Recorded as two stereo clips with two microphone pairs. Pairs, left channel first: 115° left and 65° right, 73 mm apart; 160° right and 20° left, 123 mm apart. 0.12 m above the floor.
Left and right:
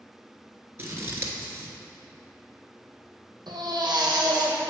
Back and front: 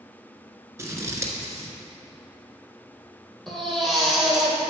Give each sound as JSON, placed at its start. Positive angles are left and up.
{"t": 0.8, "sound": "scissors", "azimuth_deg": -35, "distance_m": 1.2}
{"t": 3.5, "sound": "a baby crying", "azimuth_deg": -75, "distance_m": 1.8}